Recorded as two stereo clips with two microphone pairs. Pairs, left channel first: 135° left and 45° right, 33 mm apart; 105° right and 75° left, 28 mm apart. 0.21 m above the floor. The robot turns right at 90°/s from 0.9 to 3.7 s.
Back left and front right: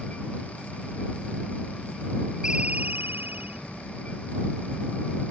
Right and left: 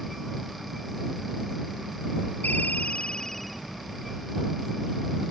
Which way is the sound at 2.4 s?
115° right.